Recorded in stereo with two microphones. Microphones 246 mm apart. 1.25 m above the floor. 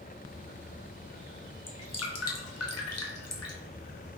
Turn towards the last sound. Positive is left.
turn(degrees=80)